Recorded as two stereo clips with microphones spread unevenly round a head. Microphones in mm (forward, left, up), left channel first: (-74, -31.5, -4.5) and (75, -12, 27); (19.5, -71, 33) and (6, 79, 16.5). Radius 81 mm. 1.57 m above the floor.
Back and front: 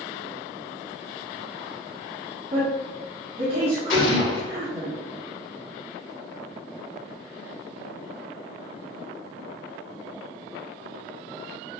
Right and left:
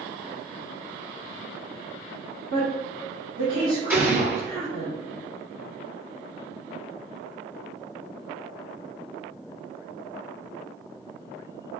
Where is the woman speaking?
60° left, 1.7 m.